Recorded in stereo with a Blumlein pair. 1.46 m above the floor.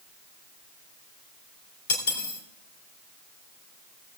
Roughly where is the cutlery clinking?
Ahead left.